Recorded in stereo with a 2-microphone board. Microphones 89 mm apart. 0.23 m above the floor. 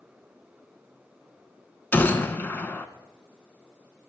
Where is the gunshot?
25° left (ahead or behind), 0.5 m.